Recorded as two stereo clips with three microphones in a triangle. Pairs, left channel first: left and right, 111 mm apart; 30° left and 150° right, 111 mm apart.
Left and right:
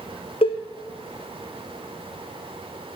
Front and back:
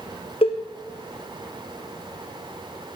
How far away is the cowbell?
About 1.1 m.